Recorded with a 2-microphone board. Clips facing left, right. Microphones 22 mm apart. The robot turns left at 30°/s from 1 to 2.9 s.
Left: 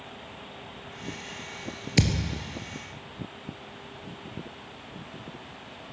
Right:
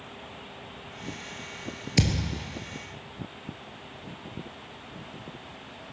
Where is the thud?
10° left (ahead or behind), 0.9 m; by 2.3 s 15° left (ahead or behind), 0.9 m.